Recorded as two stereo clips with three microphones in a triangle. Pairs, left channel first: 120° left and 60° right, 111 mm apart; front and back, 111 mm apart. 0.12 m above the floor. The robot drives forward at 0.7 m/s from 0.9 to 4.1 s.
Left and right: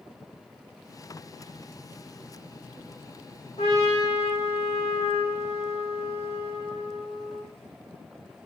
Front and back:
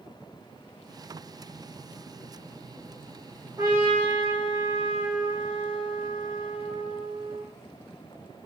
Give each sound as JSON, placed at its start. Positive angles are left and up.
{"t": 3.6, "sound": "a trumpet", "azimuth_deg": 130, "distance_m": 7.0}